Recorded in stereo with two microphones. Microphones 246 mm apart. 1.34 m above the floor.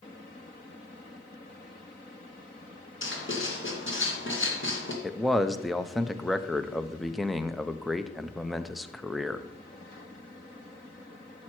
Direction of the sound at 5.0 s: Centre (ahead or behind).